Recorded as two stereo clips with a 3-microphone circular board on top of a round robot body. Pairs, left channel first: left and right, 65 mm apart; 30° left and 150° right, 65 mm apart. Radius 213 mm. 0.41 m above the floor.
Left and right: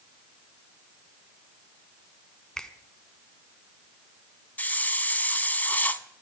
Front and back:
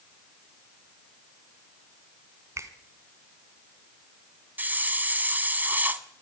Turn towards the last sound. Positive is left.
turn(degrees=155)